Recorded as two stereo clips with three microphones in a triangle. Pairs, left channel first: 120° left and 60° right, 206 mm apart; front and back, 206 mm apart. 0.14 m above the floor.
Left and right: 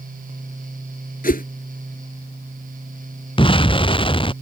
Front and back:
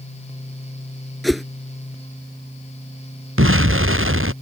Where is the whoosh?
90° left.